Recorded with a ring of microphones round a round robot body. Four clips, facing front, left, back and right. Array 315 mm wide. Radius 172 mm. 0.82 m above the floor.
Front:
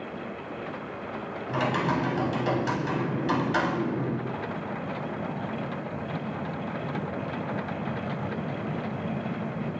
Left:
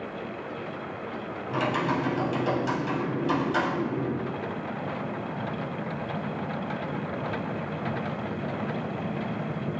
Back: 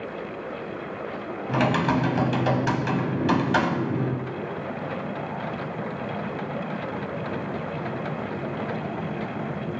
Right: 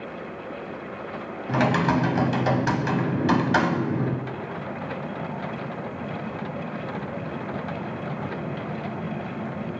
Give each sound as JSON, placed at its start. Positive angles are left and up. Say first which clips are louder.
{"t": 1.5, "sound": "typing on a keyboard", "louder": "right 5 dB, back 4 dB", "azimuth_deg": -125, "distance_m": 1.3}